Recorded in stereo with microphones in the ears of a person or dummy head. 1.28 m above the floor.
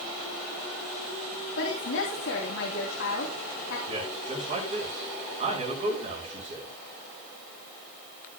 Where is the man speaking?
35° right (ahead or behind), 5 m.